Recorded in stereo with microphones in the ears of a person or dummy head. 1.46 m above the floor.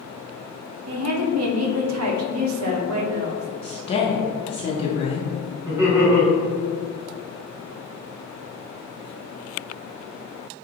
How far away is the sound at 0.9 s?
About 0.8 m.